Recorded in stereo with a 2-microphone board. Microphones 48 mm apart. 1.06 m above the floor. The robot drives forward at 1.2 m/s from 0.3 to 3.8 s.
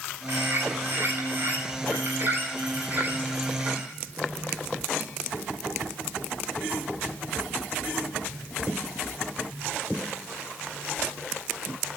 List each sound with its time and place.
0.3 s a bird: 55° right (ahead or behind), 10 m; by 3.9 s 40° right (ahead or behind), 12.5 m